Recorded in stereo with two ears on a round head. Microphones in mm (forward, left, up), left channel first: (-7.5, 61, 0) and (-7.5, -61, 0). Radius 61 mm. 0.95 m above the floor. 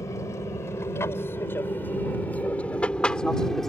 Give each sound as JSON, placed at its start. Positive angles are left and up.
{"t": 0.0, "sound": "an aircraft", "side_deg": 25}